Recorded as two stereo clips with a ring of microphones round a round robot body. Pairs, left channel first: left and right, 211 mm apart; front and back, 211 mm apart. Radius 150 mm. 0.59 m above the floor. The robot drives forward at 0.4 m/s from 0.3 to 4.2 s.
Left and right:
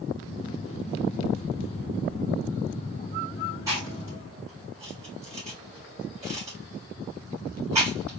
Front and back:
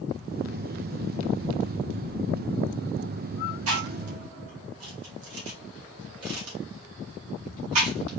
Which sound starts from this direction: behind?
Chewing, at 3.7 s.